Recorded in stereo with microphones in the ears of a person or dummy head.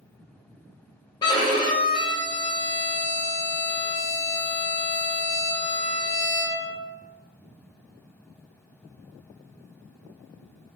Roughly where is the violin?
Left.